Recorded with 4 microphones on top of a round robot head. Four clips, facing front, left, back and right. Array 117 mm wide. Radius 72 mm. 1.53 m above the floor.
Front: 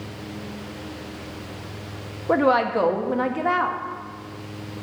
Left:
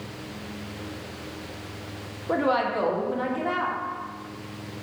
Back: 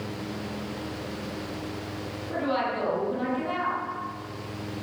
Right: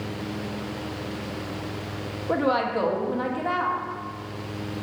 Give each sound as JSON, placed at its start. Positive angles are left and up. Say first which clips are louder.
{"t": 2.3, "sound": "a woman speaking", "louder": "even, front 9 dB", "azimuth_deg": -5, "distance_m": 1.4}